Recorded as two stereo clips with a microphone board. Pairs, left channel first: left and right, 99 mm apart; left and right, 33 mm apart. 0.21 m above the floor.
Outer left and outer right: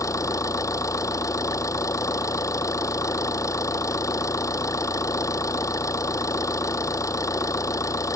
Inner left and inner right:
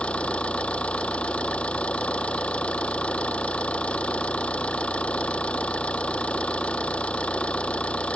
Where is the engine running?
30° left (ahead or behind).